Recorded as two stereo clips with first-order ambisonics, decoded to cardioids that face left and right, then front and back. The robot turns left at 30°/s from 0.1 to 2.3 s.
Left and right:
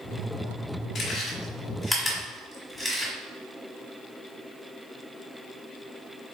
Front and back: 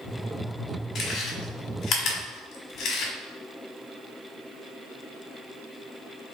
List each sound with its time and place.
0.9 s chewing: 35° left, 1.3 m; by 3.1 s 5° right, 1.3 m